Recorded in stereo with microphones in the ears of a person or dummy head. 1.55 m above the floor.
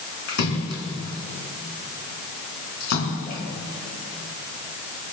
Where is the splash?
55° left (ahead or behind), 3.5 m.